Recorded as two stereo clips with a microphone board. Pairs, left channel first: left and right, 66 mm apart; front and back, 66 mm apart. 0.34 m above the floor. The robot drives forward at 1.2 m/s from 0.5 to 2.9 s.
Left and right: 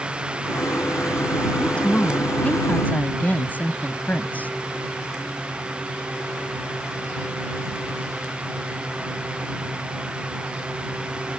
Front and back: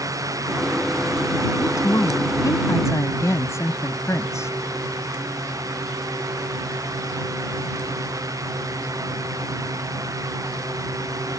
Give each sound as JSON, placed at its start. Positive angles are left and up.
{"t": 1.6, "sound": "a woman speaking", "azimuth_deg": 20}